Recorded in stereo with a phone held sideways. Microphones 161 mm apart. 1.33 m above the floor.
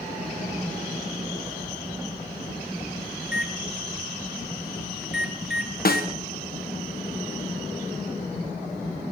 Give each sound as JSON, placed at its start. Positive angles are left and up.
{"t": 3.2, "sound": "a microwave", "side_deg": -5, "distance_m": 0.9}
{"t": 5.8, "sound": "a snare drum", "side_deg": 65, "distance_m": 1.1}